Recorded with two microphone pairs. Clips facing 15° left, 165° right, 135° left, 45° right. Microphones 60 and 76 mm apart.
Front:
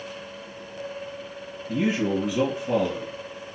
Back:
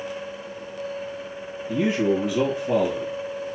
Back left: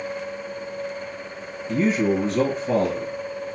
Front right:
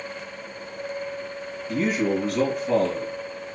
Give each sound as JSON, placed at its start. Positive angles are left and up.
{"t": 1.7, "sound": "a man speaking", "azimuth_deg": 95, "distance_m": 1.8}